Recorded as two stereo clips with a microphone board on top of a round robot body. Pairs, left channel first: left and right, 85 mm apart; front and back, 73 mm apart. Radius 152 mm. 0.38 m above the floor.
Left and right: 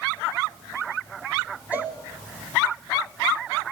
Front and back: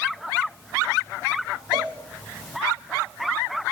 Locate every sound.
1.7 s a cowbell: 165° right, 3.5 m